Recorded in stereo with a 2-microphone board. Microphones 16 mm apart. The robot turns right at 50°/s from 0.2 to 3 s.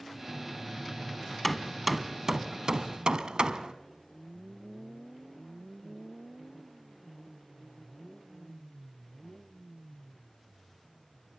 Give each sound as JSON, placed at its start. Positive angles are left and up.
{"t": 1.4, "sound": "hammering", "side_deg": 5, "distance_m": 0.9}